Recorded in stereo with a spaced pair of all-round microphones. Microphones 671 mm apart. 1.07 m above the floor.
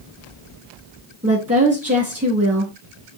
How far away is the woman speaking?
About 2.0 m.